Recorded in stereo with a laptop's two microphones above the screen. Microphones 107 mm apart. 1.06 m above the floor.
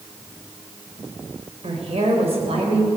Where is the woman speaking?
75° right (ahead or behind), 3.5 m; by 2.9 s 65° right (ahead or behind), 4 m.